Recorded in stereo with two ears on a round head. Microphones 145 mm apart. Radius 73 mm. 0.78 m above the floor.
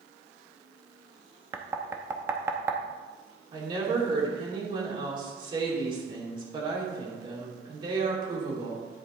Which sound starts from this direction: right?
A woman speaking, at 3.5 s.